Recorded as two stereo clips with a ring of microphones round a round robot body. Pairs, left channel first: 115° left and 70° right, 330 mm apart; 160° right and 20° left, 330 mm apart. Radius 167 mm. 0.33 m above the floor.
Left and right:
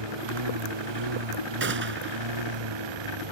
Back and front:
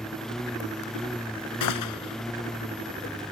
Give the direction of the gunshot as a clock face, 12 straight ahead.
4 o'clock.